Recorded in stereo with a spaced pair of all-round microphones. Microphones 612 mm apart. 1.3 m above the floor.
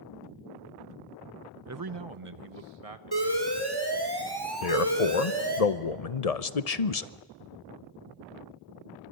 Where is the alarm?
40° right (ahead or behind), 3 m.